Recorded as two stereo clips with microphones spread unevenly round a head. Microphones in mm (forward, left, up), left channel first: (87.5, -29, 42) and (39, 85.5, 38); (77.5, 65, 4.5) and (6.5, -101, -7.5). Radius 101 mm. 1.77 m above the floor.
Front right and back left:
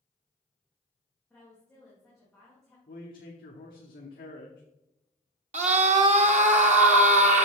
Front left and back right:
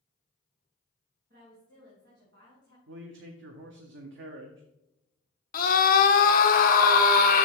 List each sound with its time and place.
1.3 s a woman speaking: 155° right, 2.5 m
2.9 s a man speaking: 95° right, 1.0 m
5.5 s a scream: 100° left, 1.0 m